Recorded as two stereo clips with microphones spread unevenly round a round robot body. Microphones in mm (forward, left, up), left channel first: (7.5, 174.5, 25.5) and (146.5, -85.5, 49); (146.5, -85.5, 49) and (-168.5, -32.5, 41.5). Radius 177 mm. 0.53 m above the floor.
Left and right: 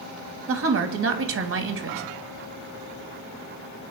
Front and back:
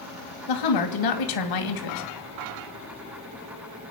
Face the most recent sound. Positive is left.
turn(degrees=-15)